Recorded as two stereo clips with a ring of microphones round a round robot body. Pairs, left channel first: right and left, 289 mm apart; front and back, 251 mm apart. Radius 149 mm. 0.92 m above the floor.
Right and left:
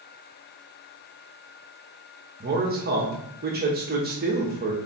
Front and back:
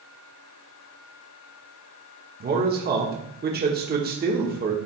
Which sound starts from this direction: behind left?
A man speaking, at 2.4 s.